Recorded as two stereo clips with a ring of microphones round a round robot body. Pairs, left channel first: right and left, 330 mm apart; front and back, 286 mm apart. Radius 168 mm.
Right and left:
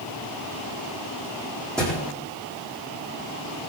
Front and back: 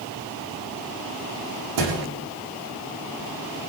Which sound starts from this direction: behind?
A thud, at 1.8 s.